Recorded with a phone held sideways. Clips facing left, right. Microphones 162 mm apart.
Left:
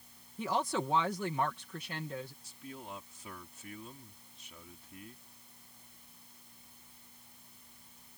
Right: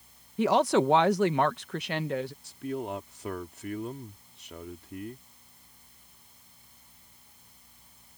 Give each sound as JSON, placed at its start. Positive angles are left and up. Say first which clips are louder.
{"t": 0.4, "sound": "a woman speaking", "louder": "right 11 dB", "side_deg": -75}
{"t": 2.4, "sound": "a man speaking", "louder": "right 13 dB", "side_deg": -70}